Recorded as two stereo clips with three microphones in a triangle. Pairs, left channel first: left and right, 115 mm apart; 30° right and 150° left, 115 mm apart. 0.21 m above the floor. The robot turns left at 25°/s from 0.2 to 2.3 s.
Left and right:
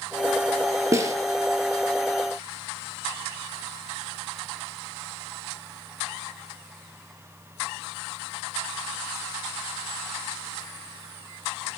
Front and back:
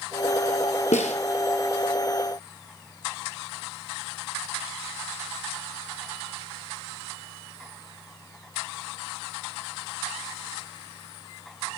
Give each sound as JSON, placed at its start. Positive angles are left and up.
{"t": 0.9, "sound": "a snare drum", "azimuth_deg": -25, "distance_m": 1.4}